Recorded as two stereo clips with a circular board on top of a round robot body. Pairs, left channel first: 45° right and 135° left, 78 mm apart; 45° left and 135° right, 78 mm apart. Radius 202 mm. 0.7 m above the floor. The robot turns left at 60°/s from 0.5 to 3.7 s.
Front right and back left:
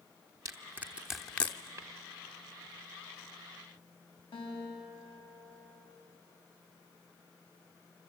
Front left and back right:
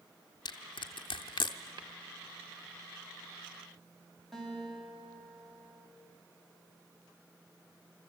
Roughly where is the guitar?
Ahead right.